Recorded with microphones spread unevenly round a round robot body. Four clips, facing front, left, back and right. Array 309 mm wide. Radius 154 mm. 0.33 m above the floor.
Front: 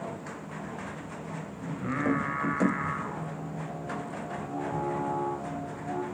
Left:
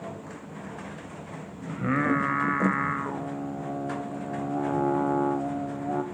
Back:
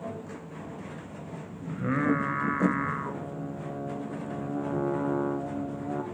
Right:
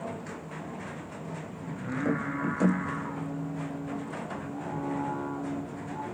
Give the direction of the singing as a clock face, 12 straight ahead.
8 o'clock.